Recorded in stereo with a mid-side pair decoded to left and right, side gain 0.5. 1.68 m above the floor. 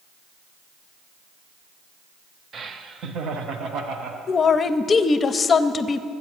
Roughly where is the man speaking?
Ahead left.